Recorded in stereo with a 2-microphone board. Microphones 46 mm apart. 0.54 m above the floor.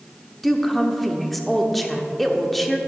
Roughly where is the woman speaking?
Centre.